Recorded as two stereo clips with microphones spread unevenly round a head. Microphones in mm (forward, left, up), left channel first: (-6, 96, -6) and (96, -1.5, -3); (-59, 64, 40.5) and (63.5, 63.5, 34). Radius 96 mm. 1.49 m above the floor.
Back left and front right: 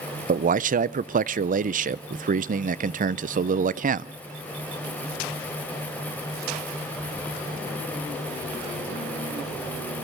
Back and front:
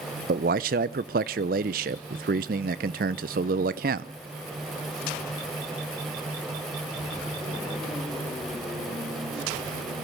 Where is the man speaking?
20° right, 0.6 m.